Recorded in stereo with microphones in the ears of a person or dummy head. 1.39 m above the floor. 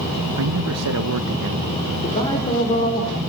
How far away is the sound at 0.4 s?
About 1.3 m.